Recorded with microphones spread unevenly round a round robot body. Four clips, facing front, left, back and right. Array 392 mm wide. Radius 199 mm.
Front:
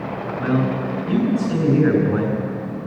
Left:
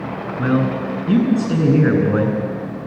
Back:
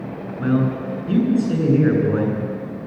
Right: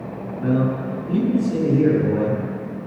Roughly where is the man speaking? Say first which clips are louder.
Left 2 dB, back 1 dB; left.